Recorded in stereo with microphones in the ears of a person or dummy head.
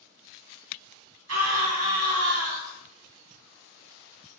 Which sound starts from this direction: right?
A scream, at 1.3 s.